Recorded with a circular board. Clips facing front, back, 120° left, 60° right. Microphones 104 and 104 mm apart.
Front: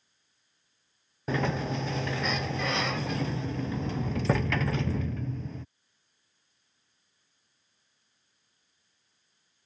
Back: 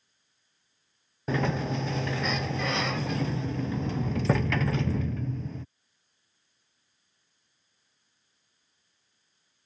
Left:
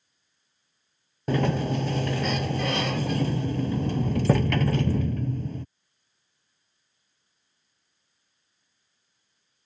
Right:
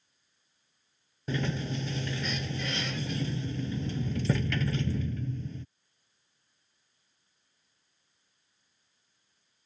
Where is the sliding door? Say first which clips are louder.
Back 1 dB, left 8 dB; 90° left.